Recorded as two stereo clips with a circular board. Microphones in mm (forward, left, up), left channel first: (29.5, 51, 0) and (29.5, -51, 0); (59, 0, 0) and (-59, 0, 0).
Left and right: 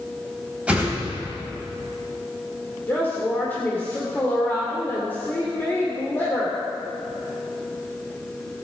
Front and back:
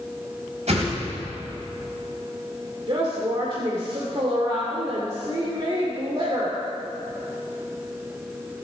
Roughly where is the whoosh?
Behind.